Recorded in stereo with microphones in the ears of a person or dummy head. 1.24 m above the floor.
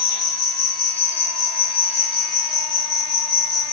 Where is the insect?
Centre (ahead or behind), 1.1 m.